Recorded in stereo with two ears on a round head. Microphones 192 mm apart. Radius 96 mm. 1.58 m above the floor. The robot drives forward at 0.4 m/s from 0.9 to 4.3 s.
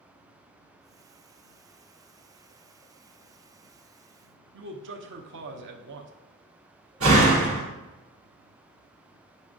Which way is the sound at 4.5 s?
55° right (ahead or behind).